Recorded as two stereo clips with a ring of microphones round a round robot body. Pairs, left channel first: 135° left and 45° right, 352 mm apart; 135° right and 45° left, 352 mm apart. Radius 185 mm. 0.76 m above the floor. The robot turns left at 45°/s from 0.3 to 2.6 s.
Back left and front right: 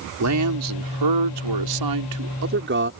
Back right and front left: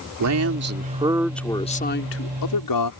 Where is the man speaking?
Straight ahead; by 2.9 s 105° right.